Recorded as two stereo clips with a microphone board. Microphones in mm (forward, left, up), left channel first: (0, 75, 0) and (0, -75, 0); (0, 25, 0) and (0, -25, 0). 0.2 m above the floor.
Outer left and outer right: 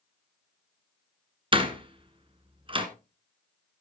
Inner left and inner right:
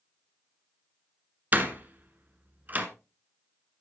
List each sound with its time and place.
1.5 s a door slam: 35° right (ahead or behind), 1.6 m